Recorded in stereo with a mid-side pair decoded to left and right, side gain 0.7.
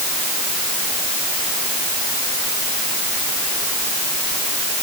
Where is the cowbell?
No cowbell in this recording.